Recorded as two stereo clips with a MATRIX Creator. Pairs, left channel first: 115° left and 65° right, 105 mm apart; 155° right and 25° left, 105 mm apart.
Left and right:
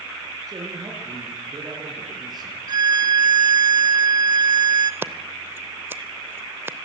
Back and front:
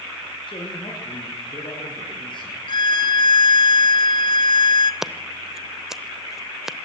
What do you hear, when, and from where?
0.5 s a man speaking: 120° right, 5.5 m; by 2.6 s 115° right, 7 m
2.7 s a violin: 115° right, 0.8 m
5.0 s scissors: 55° right, 0.8 m